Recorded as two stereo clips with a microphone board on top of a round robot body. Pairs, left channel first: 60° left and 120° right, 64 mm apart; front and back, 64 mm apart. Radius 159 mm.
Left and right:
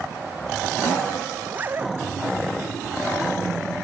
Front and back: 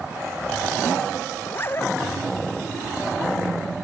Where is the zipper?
55° right.